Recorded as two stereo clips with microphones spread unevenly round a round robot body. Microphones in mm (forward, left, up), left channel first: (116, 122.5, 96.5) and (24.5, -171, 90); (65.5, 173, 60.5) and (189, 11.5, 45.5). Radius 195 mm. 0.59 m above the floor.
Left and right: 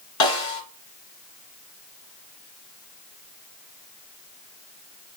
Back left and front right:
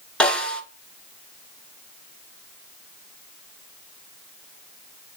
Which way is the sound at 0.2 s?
45° left.